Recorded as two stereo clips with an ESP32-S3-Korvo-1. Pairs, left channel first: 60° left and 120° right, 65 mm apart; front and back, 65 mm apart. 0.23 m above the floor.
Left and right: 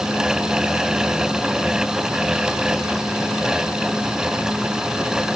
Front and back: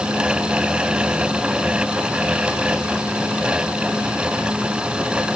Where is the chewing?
No chewing in this recording.